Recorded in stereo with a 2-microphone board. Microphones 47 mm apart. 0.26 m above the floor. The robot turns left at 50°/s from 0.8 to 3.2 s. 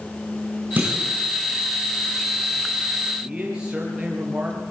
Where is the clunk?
40° right (ahead or behind), 9 m; by 1.1 s 25° right (ahead or behind), 9 m.